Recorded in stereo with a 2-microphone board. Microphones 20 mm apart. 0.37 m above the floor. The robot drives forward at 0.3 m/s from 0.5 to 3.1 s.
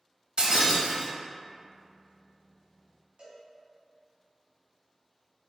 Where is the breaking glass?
50° right (ahead or behind), 0.5 m; by 1.1 s 65° right (ahead or behind), 0.5 m.